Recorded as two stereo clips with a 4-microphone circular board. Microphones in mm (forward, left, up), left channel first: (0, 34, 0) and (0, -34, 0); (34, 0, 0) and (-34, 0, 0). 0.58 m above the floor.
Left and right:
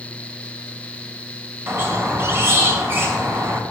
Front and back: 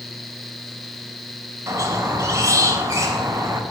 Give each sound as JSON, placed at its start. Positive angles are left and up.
{"t": 1.7, "sound": "a squeak", "azimuth_deg": -140, "distance_m": 2.5}